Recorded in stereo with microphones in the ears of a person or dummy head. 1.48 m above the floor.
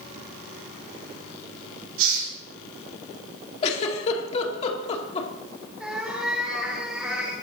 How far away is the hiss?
About 5 m.